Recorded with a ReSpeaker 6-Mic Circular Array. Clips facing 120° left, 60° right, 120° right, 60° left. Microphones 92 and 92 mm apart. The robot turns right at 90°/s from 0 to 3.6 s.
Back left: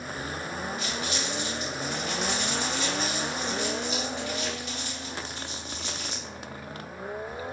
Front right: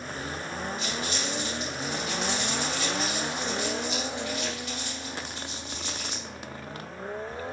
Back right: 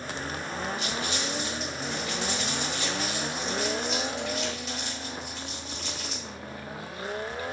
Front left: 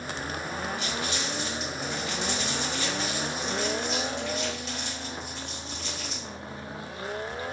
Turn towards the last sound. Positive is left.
turn(degrees=155)